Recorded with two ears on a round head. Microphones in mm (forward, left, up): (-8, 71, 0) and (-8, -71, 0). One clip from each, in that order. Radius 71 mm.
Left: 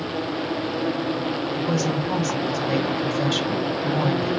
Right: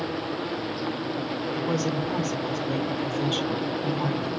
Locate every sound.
1.5 s a woman speaking: 20° left (ahead or behind), 2.5 m